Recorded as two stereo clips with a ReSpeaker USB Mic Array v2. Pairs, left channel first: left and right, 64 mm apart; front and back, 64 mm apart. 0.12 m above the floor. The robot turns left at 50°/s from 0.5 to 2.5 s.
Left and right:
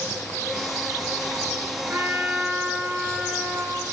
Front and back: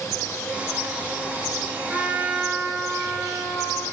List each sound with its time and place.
1.9 s a trumpet: 115° right, 1.7 m; by 3.8 s 145° right, 1.7 m